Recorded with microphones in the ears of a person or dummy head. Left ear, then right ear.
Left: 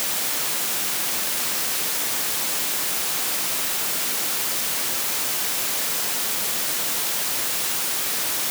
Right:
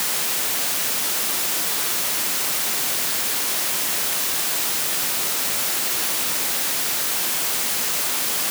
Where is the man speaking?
I don't hear a man speaking.